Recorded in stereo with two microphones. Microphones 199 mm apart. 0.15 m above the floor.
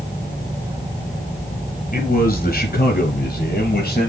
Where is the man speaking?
50° left (ahead or behind), 3 m; by 4.1 s 55° left (ahead or behind), 4 m.